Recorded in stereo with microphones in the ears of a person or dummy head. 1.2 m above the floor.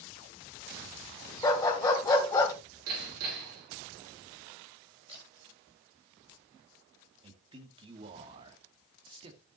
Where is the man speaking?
25° right (ahead or behind), 1.9 m.